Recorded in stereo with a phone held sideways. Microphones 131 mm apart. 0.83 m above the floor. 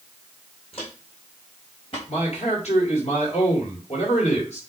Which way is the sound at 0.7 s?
50° left (ahead or behind).